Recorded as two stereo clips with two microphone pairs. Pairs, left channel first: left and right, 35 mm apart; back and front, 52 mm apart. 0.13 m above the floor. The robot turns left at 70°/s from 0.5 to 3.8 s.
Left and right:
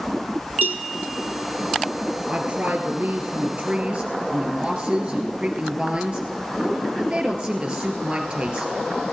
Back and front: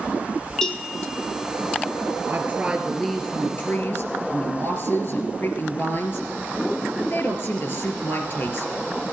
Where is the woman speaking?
45° right, 2.5 m; by 8.7 s 150° right, 2.5 m.